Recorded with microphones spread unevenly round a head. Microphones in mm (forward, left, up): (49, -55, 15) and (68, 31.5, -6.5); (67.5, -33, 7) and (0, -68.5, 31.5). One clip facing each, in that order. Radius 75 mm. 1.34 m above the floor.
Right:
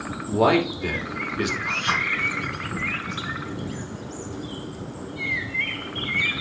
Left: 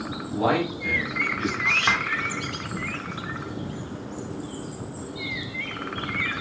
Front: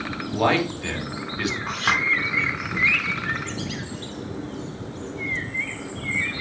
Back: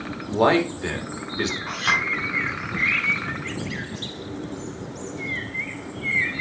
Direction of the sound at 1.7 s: 100° left.